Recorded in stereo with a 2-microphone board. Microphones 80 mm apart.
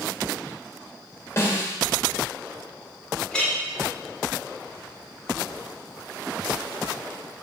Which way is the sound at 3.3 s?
10° left (ahead or behind).